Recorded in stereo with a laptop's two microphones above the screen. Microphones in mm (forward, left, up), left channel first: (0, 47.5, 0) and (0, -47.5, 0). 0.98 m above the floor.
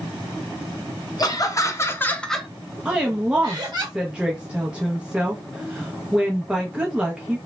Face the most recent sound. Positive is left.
turn(degrees=-10)  # may be behind; listen again after turning